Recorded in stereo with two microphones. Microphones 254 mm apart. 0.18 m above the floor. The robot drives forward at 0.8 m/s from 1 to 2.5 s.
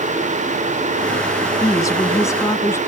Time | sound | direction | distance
1.6 | a woman speaking | 15° left (ahead or behind) | ?